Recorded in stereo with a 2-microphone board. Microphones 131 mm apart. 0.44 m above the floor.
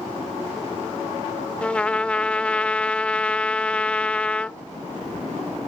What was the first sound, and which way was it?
A trumpet, 10° left (ahead or behind).